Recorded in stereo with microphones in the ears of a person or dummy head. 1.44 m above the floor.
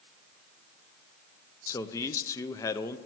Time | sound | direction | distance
1.7 | a man speaking | 20° left (ahead or behind) | 0.6 m